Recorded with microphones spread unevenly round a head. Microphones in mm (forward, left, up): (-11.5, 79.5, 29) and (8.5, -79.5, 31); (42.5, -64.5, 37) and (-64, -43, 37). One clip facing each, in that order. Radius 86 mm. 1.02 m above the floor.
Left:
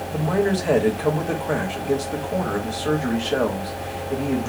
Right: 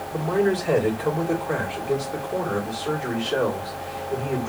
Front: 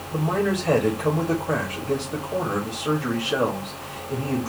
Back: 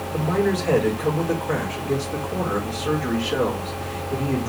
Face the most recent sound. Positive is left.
turn(degrees=65)